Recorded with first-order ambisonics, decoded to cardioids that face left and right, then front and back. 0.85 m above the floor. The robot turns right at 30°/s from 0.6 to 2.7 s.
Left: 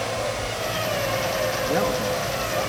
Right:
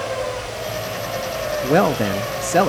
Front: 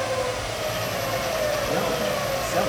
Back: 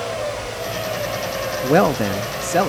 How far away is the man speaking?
About 0.7 m.